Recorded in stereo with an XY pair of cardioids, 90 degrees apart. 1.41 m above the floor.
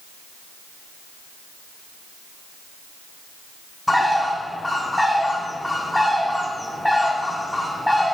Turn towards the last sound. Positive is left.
turn(degrees=5)